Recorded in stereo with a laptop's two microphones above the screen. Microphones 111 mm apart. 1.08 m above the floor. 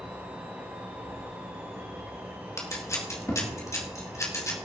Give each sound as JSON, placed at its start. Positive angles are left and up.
{"t": 0.0, "sound": "a fan", "side_deg": -15, "distance_m": 1.8}
{"t": 2.6, "sound": "scissors", "side_deg": 25, "distance_m": 2.0}